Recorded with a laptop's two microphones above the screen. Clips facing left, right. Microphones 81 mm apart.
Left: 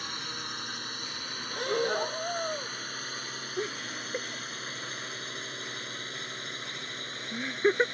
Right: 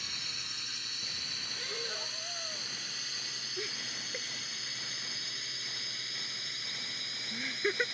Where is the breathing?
60° left (ahead or behind).